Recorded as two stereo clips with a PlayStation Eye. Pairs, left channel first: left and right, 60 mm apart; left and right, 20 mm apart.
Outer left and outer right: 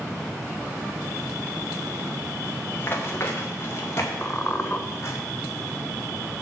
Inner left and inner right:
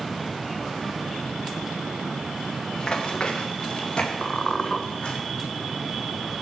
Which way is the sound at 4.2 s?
30° left (ahead or behind).